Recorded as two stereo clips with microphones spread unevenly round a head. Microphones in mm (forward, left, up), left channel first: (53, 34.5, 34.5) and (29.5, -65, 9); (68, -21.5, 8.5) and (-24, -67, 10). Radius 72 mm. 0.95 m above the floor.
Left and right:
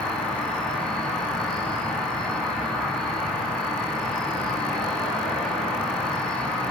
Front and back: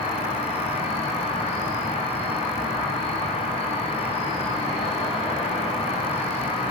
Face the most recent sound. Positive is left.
turn(degrees=-5)